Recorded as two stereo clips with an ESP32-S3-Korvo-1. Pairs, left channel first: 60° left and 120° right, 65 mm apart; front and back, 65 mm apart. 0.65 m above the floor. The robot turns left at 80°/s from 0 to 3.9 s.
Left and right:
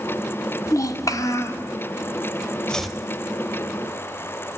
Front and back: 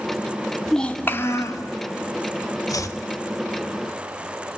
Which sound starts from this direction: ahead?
Chopping, at 2.7 s.